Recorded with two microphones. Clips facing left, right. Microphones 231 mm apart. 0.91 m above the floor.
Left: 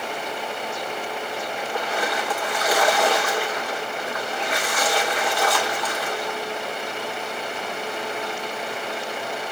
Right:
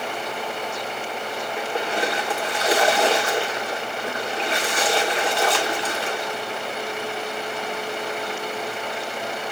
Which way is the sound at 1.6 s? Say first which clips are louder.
Right 3 dB; 25° right (ahead or behind).